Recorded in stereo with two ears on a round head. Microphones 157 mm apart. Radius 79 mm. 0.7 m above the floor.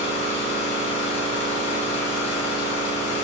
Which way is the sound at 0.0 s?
40° left (ahead or behind).